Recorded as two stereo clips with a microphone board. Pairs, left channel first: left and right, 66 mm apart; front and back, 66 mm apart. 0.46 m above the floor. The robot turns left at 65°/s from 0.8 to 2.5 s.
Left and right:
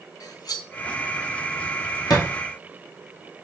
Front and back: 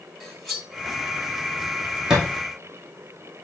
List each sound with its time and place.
0.2 s cutlery clinking: 90° left, 1.6 m
2.1 s a thud: 100° left, 2.5 m; by 2.3 s 90° left, 2.5 m